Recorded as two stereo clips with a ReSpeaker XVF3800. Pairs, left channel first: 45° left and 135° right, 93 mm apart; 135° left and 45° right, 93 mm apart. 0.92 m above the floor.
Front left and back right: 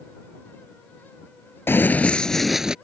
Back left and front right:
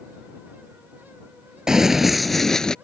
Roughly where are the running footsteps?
Ahead left.